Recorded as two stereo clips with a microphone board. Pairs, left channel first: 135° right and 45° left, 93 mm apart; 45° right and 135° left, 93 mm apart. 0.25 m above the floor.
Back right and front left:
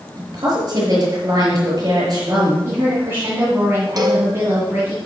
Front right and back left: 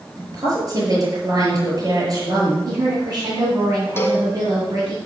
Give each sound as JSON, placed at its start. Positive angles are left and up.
{"t": 0.2, "sound": "a woman speaking", "azimuth_deg": 90, "distance_m": 5.0}
{"t": 2.6, "sound": "a woman speaking", "azimuth_deg": 100, "distance_m": 2.5}
{"t": 4.0, "sound": "a cowbell", "azimuth_deg": 15, "distance_m": 1.4}